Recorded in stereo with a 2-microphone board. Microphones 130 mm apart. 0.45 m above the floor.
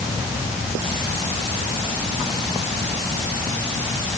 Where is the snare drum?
I don't hear a snare drum.